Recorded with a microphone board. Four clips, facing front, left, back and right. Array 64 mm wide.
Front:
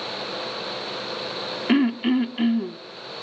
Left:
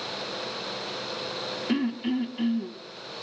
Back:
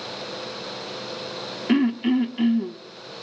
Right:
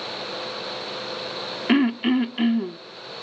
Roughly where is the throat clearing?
Right.